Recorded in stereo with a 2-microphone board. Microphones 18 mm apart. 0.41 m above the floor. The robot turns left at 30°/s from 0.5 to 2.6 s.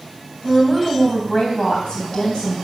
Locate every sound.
0.4 s a woman speaking: 170° left, 3 m; by 2.5 s 110° left, 3 m